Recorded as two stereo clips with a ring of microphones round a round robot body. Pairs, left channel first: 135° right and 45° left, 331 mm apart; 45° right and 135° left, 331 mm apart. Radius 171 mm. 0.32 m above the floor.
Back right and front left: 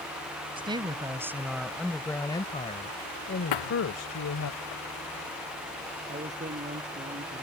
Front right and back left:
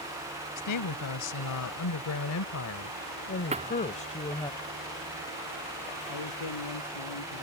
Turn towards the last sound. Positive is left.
turn(degrees=-25)